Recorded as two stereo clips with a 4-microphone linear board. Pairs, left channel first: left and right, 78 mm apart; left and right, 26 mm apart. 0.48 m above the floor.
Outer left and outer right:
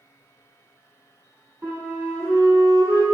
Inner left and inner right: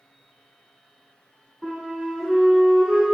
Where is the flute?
30° right (ahead or behind), 1.2 m.